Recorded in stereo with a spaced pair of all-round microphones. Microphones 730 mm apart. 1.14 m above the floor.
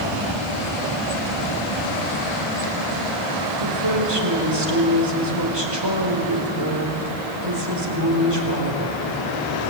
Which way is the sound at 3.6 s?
35° right (ahead or behind).